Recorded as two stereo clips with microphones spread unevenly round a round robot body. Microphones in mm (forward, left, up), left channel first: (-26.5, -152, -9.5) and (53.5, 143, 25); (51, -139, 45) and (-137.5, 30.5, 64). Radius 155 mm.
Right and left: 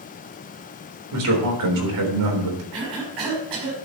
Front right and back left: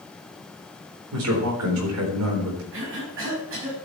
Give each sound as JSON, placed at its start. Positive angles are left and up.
{"t": 1.1, "sound": "a man speaking", "azimuth_deg": 105, "distance_m": 4.0}
{"t": 2.7, "sound": "a cough", "azimuth_deg": 90, "distance_m": 5.0}